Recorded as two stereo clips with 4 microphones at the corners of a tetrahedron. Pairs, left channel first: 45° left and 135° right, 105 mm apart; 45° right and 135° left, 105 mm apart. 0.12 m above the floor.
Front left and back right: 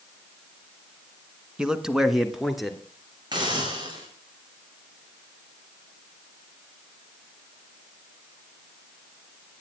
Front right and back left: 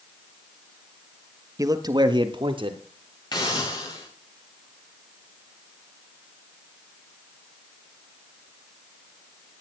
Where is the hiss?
90° right, 5 m.